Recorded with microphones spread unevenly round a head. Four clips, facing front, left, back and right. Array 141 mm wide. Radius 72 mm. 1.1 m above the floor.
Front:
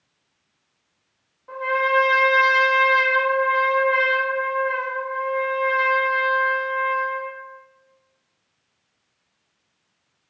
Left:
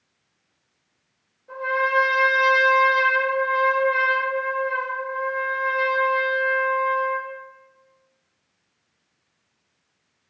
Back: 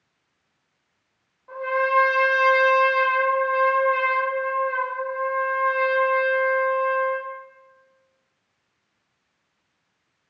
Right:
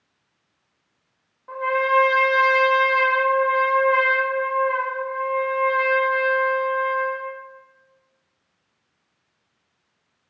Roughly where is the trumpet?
Right.